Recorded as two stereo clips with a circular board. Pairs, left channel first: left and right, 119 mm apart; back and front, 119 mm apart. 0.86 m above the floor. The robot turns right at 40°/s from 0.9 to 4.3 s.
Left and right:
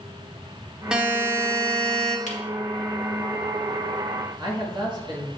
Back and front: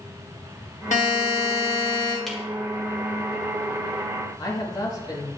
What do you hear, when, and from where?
0.9 s a buzzer: 175° right, 1.2 m; by 2.2 s 125° right, 1.2 m
2.3 s a camera shutter: 90° left, 1.6 m; by 2.4 s 95° left, 1.6 m
4.4 s a man speaking: 130° right, 1.6 m